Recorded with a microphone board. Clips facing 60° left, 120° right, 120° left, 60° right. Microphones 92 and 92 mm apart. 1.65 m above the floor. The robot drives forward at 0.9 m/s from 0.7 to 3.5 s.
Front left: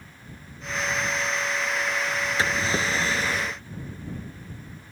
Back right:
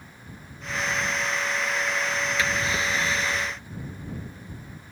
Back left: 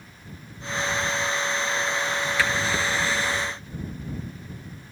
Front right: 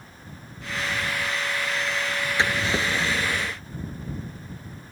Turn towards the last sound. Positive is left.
turn(degrees=5)